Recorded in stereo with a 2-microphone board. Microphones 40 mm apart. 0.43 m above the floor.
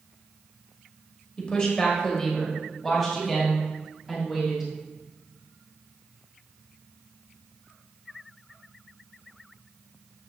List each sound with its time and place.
1.4 s a woman speaking: 25° left (ahead or behind), 1.7 m; by 4.7 s 5° right (ahead or behind), 3 m